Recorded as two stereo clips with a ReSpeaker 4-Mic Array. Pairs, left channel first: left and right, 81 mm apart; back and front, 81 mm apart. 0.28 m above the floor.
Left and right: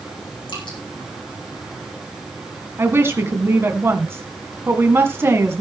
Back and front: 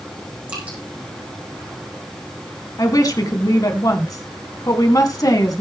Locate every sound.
0.5 s dripping: 75° left, 5 m
2.8 s a woman speaking: 145° right, 2 m